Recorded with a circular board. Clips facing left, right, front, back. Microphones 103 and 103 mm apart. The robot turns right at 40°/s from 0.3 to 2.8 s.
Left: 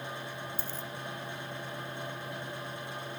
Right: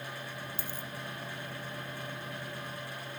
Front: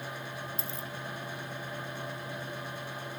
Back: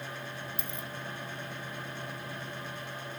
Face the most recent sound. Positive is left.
turn(degrees=60)